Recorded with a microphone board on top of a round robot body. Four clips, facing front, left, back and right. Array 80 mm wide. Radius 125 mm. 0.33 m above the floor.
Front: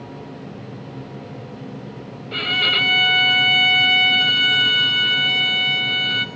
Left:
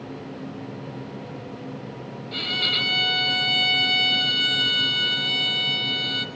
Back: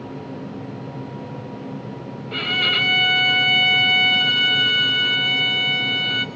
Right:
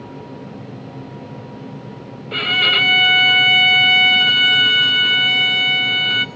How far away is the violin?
About 1.9 m.